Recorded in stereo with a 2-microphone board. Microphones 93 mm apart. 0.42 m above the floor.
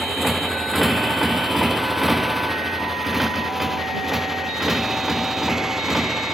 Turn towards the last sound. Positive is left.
turn(degrees=-5)  # may be behind; listen again after turning